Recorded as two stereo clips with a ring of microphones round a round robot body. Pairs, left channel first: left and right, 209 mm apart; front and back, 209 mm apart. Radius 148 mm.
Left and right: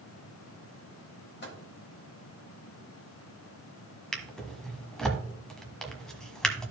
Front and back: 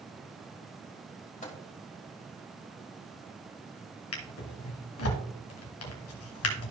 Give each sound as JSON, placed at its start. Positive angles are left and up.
{"t": 1.4, "sound": "a microwave", "azimuth_deg": 55, "distance_m": 2.0}
{"t": 4.1, "sound": "a drawer", "azimuth_deg": 5, "distance_m": 1.5}